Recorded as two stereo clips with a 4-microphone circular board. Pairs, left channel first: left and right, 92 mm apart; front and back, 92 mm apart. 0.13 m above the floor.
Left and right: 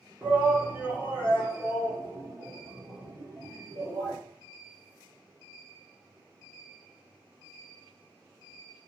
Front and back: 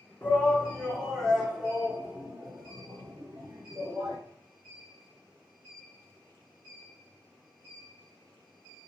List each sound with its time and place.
0.2 s a shout: 30° right, 1.2 m; by 4.2 s 135° right, 2 m